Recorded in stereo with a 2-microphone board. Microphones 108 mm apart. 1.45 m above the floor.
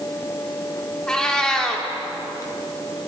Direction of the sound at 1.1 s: 5° left (ahead or behind).